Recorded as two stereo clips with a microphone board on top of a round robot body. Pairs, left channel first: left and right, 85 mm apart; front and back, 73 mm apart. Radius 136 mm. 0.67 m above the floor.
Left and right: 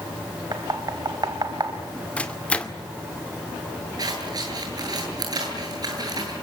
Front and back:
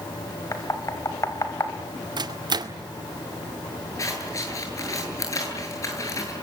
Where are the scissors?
45° right, 8.5 m.